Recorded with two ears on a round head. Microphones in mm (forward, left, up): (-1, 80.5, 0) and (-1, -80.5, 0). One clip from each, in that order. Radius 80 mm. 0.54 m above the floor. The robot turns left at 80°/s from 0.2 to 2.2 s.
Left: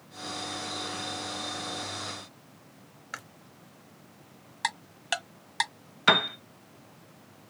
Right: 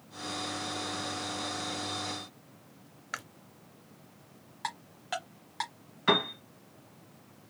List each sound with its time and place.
3.1 s chewing: 5° right (ahead or behind), 0.5 m
4.6 s ticking: 70° left (ahead or behind), 1.4 m
6.1 s a piano: 65° left (ahead or behind), 0.9 m